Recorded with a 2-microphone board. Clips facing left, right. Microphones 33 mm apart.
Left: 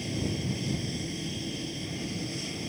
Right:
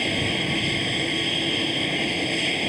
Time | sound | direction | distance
0.0 | an aircraft | 60° right (ahead or behind) | ?